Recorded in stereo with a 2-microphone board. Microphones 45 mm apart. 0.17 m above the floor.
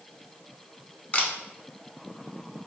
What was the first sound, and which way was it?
A camera shutter, 30° left (ahead or behind).